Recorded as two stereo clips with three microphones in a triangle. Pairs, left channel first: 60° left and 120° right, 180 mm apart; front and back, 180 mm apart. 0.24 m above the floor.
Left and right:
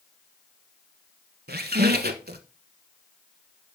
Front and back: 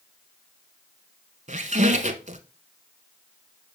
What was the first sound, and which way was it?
A squeak, 140° right.